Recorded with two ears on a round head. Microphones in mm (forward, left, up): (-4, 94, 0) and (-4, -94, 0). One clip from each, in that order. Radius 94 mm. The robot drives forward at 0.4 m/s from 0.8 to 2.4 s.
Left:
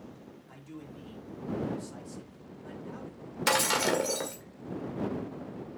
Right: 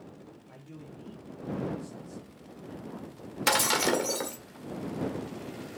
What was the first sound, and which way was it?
A man speaking, 40° left (ahead or behind).